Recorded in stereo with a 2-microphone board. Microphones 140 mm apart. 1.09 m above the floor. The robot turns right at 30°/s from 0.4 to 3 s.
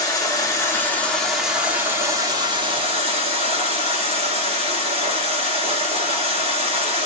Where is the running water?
155° left, 1.1 m; by 7.1 s 130° right, 1.1 m.